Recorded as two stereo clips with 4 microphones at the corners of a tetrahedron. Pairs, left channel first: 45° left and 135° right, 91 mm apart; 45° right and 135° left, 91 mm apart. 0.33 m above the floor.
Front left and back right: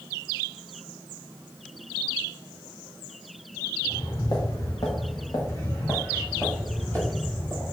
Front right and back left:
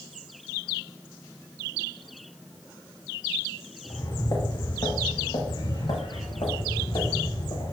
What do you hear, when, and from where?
3.8 s footsteps: 5° left, 3.5 m; by 7.7 s 35° right, 6.5 m